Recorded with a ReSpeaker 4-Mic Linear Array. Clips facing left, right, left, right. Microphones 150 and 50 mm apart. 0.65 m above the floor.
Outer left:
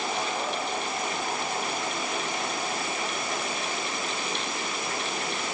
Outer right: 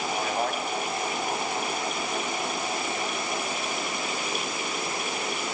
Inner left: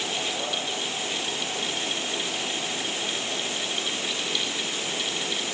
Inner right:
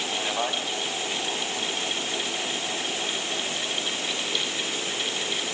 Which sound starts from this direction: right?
A man speaking, at 0.2 s.